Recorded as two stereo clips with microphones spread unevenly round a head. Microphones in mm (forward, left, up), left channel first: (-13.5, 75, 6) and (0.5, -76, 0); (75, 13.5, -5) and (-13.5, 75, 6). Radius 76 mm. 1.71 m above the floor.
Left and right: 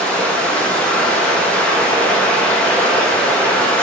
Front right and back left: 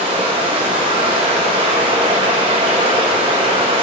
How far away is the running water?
About 1.4 m.